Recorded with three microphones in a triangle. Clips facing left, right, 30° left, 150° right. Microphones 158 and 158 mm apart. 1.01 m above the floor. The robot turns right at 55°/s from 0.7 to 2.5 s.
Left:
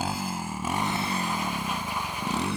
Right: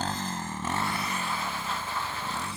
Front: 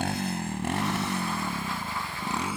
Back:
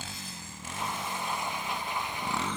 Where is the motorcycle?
10° left; by 2.6 s 110° left.